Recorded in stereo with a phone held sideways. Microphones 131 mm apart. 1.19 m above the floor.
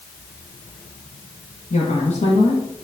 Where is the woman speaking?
60° left (ahead or behind), 1.6 m.